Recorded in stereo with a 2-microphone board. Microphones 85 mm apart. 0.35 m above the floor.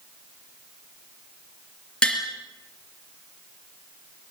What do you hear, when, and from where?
2.0 s tapping: 10° left (ahead or behind), 4.5 m